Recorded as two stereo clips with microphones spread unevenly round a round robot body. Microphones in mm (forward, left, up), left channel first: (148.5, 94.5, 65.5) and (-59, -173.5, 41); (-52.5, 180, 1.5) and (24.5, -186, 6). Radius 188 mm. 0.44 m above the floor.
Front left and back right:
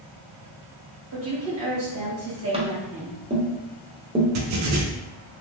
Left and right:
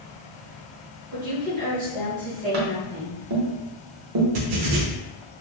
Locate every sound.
1.1 s a woman speaking: 140° right, 1.4 m
2.5 s tapping: 60° right, 0.7 m
4.3 s writing: 100° right, 0.6 m